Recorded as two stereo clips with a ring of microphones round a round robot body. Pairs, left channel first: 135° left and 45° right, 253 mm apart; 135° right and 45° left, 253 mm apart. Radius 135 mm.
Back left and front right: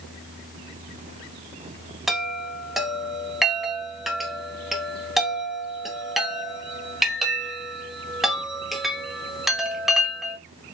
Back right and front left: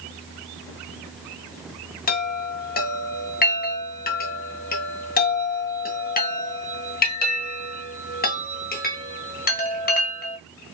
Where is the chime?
135° right, 1.3 m.